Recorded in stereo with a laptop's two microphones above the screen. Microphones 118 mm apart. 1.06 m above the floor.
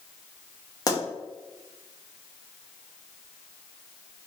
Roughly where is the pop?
Left.